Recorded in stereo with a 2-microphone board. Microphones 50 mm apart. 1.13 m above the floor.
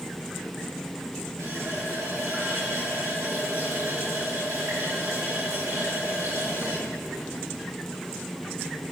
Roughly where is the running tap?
Right.